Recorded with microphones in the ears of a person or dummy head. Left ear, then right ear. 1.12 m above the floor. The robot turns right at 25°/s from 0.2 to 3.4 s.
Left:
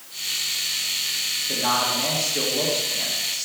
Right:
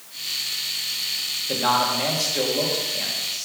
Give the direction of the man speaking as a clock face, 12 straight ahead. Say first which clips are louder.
Right 3 dB; 1 o'clock.